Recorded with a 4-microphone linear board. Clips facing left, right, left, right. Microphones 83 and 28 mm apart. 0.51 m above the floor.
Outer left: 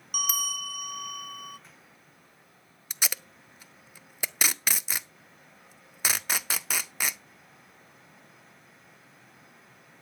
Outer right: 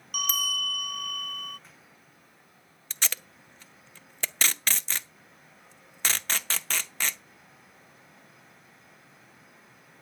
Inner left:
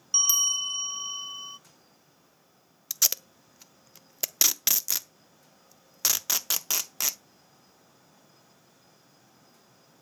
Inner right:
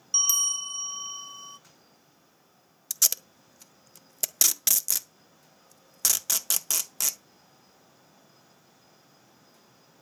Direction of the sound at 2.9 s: 10° left (ahead or behind).